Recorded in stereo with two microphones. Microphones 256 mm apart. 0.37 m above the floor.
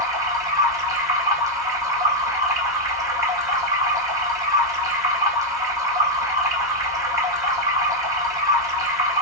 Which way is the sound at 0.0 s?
15° right (ahead or behind).